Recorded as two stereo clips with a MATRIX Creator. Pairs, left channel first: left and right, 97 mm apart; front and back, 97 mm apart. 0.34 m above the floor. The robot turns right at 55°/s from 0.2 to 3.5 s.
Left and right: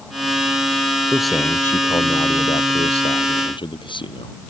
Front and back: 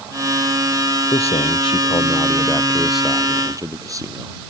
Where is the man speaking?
10° right; by 4.4 s 125° left.